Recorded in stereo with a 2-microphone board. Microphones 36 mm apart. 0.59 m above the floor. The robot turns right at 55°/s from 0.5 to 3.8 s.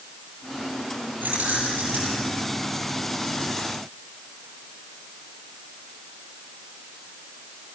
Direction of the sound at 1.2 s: 120° right.